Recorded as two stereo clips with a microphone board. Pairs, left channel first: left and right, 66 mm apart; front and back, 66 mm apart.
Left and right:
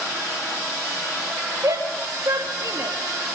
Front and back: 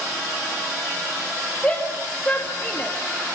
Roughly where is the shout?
Ahead right.